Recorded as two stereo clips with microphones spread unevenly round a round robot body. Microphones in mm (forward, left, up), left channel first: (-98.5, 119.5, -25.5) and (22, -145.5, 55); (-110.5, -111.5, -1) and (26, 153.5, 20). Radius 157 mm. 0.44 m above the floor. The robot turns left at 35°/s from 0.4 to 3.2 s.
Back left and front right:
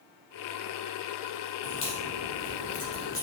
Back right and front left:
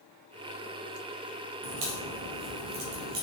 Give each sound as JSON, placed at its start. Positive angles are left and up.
{"t": 1.6, "sound": "a crack", "azimuth_deg": 85, "distance_m": 3.0}